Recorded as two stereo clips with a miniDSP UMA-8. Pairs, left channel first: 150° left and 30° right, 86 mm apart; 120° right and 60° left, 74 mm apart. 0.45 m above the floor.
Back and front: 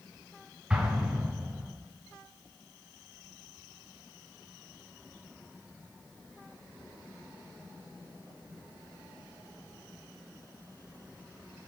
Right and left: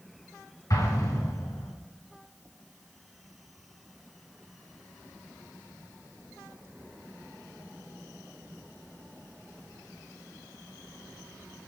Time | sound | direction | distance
0.7 | an explosion | 105° right | 2.5 m